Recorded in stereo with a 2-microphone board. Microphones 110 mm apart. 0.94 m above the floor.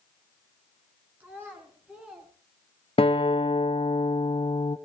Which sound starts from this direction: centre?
A child speaking, at 1.2 s.